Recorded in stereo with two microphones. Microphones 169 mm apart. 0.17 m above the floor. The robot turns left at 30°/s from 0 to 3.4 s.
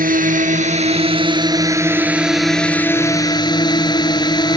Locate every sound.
0.0 s a drone: 105° right; by 4.6 s 150° left